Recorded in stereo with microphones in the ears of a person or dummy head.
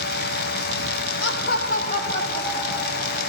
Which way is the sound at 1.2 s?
75° left (ahead or behind).